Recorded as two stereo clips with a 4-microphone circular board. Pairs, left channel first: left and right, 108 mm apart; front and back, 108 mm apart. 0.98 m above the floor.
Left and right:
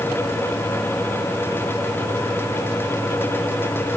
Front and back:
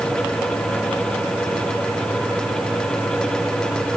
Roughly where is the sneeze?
I don't hear a sneeze.